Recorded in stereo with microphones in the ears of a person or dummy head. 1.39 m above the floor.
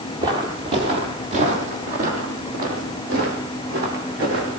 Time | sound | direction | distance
0.2 | footsteps | 25° right (ahead or behind) | 2.0 m